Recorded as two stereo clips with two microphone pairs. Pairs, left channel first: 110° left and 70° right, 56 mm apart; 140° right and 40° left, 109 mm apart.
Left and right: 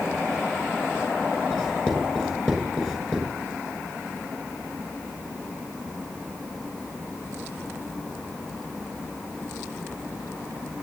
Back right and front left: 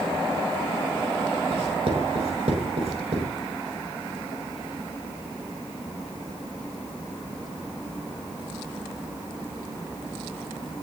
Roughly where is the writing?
Ahead left.